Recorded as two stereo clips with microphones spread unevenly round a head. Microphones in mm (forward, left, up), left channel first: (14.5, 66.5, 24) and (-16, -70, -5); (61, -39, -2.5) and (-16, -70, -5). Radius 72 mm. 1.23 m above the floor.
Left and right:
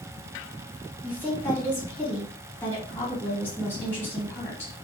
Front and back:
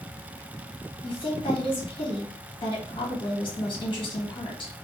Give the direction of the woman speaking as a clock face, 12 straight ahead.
12 o'clock.